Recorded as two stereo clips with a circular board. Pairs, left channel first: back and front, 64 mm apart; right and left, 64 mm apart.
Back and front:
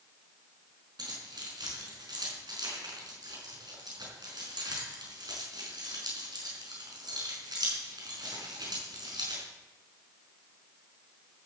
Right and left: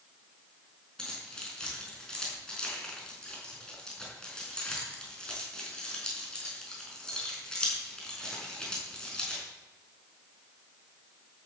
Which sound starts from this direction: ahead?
Keys jangling, at 1.0 s.